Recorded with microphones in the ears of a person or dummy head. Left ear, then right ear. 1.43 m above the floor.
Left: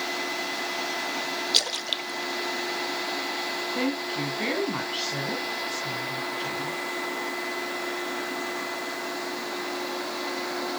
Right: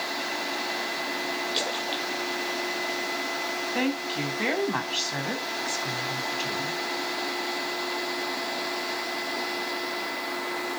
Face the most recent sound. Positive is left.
turn(degrees=-50)  # may be behind; listen again after turning